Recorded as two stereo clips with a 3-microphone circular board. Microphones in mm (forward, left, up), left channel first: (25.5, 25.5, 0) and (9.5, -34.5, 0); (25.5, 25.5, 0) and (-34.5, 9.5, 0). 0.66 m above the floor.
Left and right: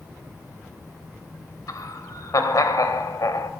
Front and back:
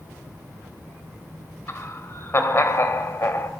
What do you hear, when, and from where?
1.7 s laughter: 60° left, 3 m